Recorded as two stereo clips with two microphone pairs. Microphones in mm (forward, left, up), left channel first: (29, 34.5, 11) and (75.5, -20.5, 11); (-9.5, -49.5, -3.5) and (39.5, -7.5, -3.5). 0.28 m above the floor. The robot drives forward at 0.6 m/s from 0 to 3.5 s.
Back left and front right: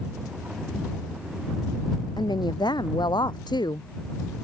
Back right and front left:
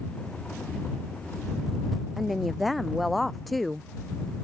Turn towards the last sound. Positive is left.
turn(degrees=130)